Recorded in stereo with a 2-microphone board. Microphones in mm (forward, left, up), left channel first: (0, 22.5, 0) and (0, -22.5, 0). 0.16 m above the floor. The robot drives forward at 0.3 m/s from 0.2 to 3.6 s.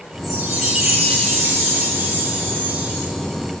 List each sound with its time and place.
0.2 s a chime: 5° right (ahead or behind), 2.0 m